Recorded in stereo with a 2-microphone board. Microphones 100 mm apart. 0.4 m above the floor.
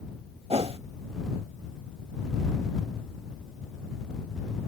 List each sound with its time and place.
0.5 s a whoosh: 75° right (ahead or behind)